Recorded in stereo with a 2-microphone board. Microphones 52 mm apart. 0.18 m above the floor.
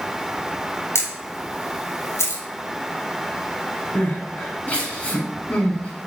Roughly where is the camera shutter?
Left.